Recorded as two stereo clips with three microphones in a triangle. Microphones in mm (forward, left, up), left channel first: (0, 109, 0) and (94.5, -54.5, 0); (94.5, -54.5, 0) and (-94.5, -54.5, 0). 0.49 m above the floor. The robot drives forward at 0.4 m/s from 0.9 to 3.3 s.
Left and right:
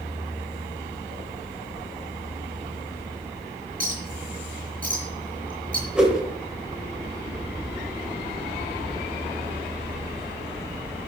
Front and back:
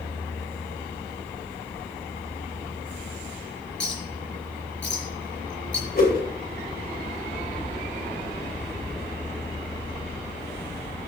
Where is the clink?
15° right, 5.5 m.